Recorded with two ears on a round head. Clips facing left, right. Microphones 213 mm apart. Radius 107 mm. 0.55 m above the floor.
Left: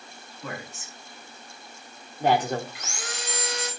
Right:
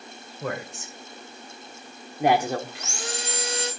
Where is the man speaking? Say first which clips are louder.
Right 6 dB; 50° right (ahead or behind), 2.5 m; by 2.6 s centre (ahead or behind), 1.3 m.